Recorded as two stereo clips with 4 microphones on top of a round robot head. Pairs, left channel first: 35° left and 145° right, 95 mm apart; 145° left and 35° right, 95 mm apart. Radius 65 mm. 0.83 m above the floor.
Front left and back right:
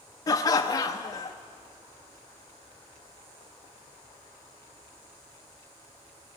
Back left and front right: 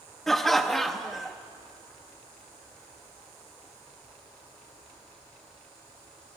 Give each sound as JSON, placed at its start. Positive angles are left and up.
{"t": 0.3, "sound": "laughter", "azimuth_deg": 60, "distance_m": 0.5}